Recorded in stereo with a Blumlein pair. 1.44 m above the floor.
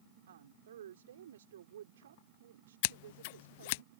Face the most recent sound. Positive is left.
turn(degrees=50)